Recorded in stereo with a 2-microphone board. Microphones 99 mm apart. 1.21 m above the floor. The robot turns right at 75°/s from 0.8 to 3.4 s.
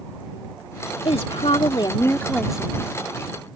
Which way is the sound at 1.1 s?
75° left.